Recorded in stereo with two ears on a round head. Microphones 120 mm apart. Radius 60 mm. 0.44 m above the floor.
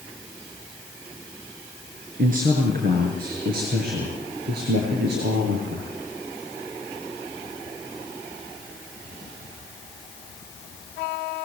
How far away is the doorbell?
I don't hear a doorbell.